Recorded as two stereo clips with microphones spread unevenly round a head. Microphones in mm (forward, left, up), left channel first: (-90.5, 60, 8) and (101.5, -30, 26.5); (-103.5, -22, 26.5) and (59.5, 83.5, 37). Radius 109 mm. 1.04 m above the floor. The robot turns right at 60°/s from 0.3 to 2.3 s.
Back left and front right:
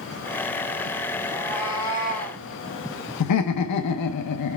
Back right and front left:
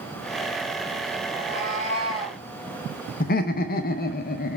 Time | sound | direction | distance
1.3 | a cat meowing | 55° left | 3 m
3.2 | laughter | 165° left | 0.6 m